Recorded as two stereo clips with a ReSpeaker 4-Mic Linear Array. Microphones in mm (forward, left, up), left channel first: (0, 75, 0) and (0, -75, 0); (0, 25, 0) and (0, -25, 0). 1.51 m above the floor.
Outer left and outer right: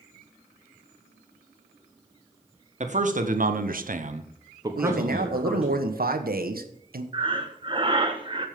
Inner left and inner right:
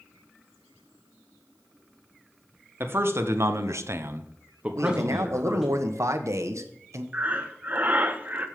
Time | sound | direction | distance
2.8 | a man speaking | 50° right (ahead or behind) | 1.5 m
4.8 | a man speaking | 80° right | 1.2 m
7.1 | breathing | 35° right (ahead or behind) | 1.1 m